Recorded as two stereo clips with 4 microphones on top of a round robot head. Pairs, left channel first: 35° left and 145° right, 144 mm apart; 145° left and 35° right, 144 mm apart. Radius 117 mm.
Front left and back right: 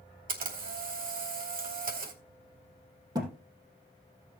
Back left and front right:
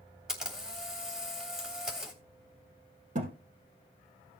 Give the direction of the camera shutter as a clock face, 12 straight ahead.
4 o'clock.